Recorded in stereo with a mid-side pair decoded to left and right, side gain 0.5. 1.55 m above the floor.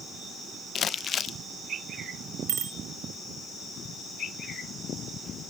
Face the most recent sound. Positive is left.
turn(degrees=-60)